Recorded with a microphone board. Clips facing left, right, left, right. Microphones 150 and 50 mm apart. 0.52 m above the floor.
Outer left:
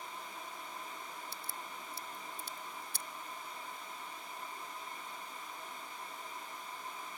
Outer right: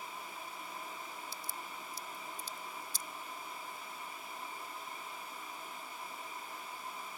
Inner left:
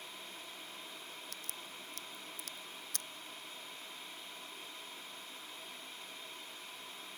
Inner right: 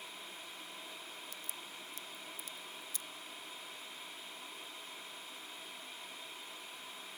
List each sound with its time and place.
1.3 s a crack: 65° left (ahead or behind)